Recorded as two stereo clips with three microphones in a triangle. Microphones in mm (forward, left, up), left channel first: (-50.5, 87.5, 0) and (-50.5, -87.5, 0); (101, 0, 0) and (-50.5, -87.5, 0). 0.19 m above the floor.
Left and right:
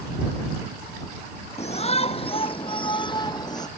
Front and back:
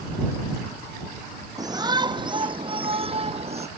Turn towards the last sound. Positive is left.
turn(degrees=160)